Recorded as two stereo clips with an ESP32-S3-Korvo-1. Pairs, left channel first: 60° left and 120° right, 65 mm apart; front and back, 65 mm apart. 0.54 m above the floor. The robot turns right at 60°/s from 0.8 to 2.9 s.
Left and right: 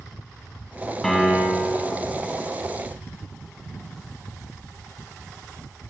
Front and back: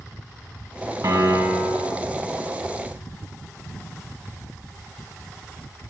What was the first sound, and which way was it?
A piano, 145° left.